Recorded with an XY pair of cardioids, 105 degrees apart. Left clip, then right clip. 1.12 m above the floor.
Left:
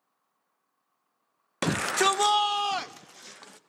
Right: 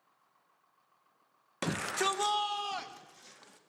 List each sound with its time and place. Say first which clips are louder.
1.6 s a shout: left 8 dB; 45° left, 0.6 m; by 3.6 s 55° left, 1.7 m